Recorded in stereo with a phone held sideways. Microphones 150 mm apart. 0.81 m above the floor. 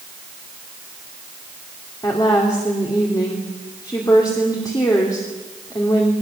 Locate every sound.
2.0 s a woman speaking: 25° left (ahead or behind), 2.5 m